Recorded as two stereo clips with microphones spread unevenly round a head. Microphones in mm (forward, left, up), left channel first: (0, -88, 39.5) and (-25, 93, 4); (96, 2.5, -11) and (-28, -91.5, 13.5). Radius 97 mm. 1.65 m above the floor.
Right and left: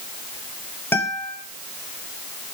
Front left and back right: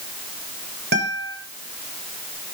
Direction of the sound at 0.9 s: 155° right.